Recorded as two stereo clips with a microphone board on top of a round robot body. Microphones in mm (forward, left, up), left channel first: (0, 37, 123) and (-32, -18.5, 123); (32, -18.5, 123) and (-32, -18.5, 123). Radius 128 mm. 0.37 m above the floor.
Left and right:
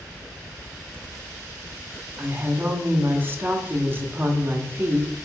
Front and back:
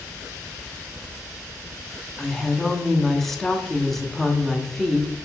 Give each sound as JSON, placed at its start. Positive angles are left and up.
{"t": 2.2, "sound": "a woman speaking", "azimuth_deg": -85, "distance_m": 1.0}